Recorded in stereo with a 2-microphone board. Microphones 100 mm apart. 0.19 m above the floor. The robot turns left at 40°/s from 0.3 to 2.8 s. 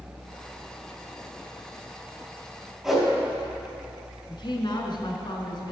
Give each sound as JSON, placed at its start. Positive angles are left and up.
{"t": 2.8, "sound": "a whoosh", "side_deg": 0, "distance_m": 4.0}
{"t": 4.3, "sound": "a woman speaking", "side_deg": 50, "distance_m": 1.7}